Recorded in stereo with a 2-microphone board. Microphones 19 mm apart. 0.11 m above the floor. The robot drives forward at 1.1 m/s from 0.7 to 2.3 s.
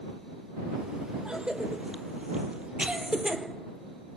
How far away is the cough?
About 4 m.